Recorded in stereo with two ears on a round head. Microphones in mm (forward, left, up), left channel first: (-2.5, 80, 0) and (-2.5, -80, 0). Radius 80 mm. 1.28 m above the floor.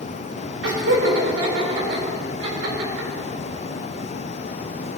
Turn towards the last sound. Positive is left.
turn(degrees=-80)